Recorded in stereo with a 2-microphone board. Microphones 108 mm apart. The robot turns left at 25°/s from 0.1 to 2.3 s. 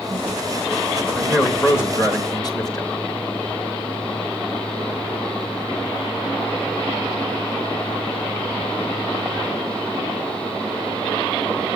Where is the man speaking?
10° left (ahead or behind), 4 m; by 2.9 s 40° left (ahead or behind), 4 m.